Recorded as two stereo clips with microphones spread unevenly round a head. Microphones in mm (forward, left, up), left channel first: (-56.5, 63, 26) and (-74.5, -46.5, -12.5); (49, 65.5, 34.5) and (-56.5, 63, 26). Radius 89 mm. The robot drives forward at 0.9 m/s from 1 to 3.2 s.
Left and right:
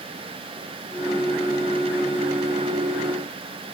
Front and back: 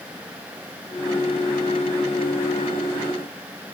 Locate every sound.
Only background noise.